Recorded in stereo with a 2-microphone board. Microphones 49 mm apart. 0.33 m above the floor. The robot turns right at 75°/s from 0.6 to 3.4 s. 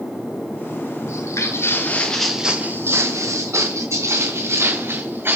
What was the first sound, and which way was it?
Footsteps, 75° left (ahead or behind).